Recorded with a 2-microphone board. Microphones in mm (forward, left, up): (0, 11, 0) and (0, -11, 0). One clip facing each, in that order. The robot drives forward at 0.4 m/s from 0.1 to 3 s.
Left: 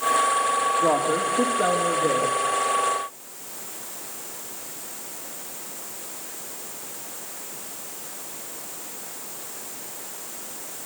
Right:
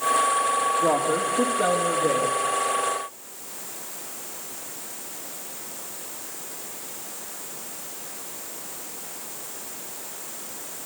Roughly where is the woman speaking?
Left.